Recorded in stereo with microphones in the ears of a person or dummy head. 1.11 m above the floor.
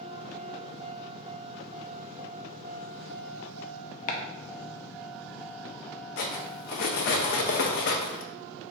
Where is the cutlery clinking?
60° left (ahead or behind), 0.5 m.